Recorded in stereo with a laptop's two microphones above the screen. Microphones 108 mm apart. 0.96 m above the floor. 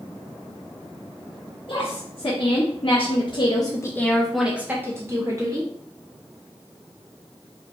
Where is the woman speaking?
55° left (ahead or behind), 1.5 m; by 5.7 s 35° right (ahead or behind), 1.2 m.